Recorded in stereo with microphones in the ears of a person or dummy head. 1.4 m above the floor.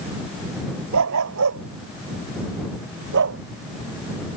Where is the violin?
No violin in this recording.